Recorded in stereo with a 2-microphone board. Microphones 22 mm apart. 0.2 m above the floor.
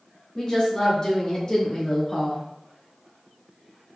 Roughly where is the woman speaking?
Left.